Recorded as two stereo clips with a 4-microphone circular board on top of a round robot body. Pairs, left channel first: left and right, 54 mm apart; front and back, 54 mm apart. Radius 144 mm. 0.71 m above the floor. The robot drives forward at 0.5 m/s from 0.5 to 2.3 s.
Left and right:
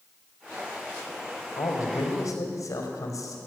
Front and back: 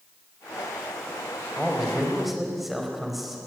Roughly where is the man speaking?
Left.